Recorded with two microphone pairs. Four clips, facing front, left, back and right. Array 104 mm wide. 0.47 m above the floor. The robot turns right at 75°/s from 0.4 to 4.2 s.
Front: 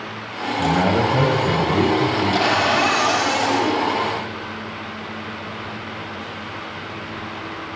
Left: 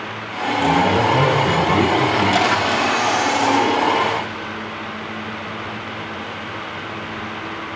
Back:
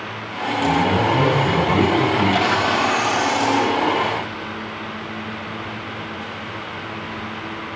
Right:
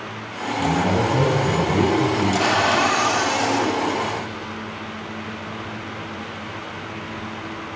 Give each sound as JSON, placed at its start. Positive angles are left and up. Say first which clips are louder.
{"t": 0.6, "sound": "a man speaking", "louder": "left 4 dB, even", "azimuth_deg": 5, "distance_m": 2.5}
{"t": 2.4, "sound": "a cupboard door", "louder": "left 1 dB, front 1 dB", "azimuth_deg": -50, "distance_m": 3.0}